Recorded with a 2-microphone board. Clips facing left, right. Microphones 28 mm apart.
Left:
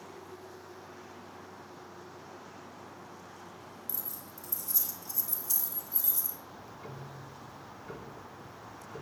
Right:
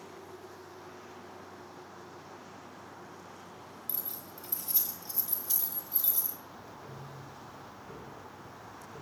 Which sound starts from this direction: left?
Ticking, at 6.5 s.